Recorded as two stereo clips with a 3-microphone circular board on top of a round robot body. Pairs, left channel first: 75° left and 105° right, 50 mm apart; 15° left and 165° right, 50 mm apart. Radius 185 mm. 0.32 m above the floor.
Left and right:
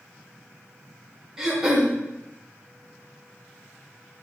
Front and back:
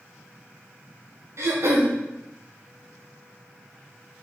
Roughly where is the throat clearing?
Behind.